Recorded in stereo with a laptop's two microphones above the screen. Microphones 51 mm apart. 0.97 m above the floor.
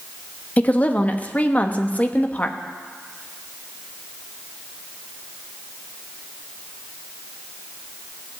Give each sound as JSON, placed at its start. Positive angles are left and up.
{"t": 0.6, "sound": "a woman speaking", "side_deg": 25, "distance_m": 1.0}